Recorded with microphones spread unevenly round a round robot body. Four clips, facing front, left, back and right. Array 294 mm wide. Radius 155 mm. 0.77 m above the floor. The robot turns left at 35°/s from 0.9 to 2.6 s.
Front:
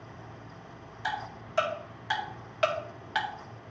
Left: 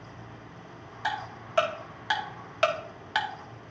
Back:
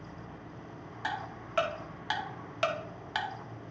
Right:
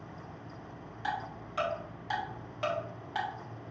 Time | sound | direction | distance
1.0 | ticking | 145° left | 2 m